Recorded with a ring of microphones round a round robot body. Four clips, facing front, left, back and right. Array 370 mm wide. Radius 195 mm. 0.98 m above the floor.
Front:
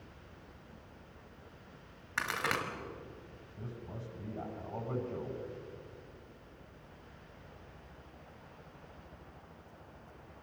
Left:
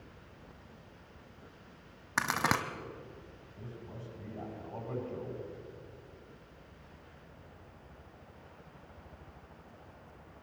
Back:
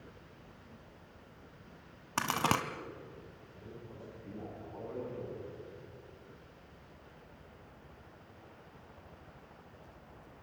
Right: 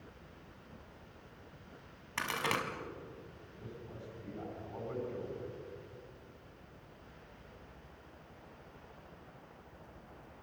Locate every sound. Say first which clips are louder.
2.2 s a crack: left 5 dB, back 4 dB; 140° left, 1.7 m
3.6 s a man speaking: left 1 dB, front 4 dB; 20° left, 9 m